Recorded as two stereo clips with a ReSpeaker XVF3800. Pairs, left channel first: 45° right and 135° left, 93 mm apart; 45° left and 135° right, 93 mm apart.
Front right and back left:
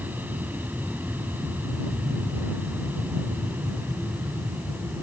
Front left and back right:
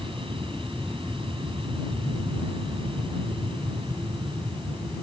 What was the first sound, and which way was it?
An aircraft, 155° right.